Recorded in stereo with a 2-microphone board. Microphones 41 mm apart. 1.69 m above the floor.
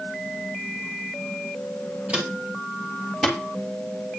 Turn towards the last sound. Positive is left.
turn(degrees=5)  # may be behind; listen again after turning